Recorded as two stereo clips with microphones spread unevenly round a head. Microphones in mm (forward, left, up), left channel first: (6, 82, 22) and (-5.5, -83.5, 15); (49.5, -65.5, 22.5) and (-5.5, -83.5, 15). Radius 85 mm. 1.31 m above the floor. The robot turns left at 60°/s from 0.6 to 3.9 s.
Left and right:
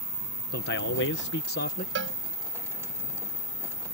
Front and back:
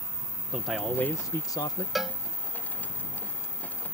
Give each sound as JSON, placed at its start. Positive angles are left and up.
{"t": 0.5, "sound": "a man speaking", "azimuth_deg": 115}
{"t": 1.9, "sound": "a cowbell", "azimuth_deg": -75}